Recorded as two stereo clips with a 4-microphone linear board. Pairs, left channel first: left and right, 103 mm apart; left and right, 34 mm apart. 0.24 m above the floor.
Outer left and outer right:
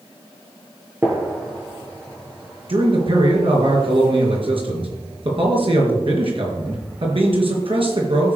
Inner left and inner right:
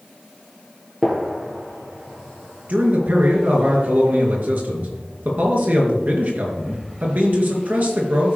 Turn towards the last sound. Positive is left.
turn(degrees=-60)  # may be behind; listen again after turning